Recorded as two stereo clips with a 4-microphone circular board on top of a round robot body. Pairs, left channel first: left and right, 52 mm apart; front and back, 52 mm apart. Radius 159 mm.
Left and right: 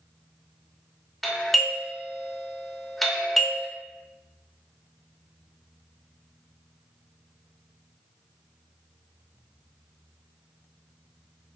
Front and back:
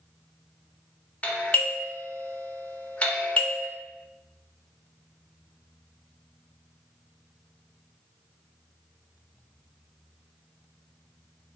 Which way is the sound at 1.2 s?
5° left.